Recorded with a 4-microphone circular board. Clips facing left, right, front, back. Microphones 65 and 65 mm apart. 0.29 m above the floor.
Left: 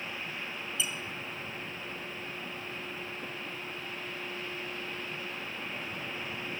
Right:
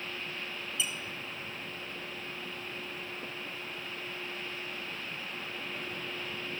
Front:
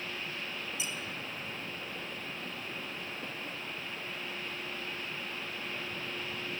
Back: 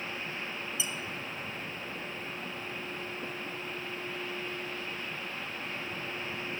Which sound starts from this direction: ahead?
A squeak, at 0.8 s.